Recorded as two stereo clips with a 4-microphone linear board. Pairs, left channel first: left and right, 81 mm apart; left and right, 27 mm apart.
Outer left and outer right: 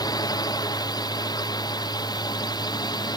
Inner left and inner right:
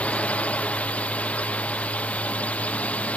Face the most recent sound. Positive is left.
turn(degrees=60)  # may be behind; listen again after turning